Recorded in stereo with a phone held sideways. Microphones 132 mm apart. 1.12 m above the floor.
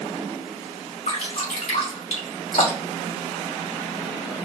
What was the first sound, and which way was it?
Dripping, 70° left (ahead or behind).